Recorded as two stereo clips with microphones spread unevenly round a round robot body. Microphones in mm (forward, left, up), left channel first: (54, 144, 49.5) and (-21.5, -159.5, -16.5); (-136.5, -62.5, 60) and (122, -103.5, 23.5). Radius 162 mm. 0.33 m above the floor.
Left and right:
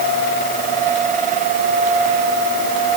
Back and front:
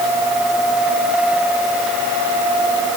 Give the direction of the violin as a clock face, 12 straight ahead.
I don't hear a violin.